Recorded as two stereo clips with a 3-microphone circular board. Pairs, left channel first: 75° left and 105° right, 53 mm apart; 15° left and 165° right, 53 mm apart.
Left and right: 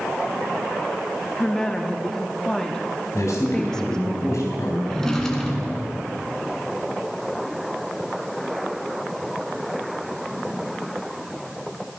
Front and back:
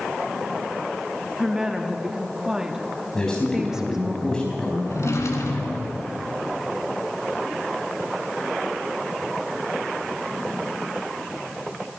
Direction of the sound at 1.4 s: 135° left.